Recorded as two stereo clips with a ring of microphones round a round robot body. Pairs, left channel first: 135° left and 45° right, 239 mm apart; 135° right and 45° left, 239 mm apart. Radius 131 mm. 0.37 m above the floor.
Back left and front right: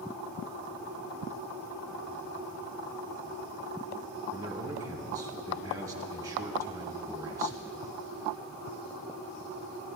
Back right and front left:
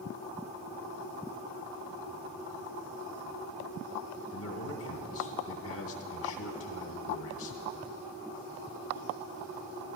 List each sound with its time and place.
4.3 s a man speaking: 120° right, 2 m